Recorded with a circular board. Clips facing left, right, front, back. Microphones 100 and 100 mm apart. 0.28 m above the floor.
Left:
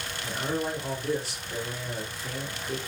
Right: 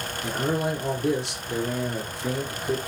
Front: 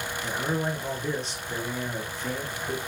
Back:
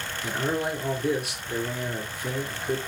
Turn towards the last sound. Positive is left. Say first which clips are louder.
# right 4 dB, back 2 dB
turn(degrees=-100)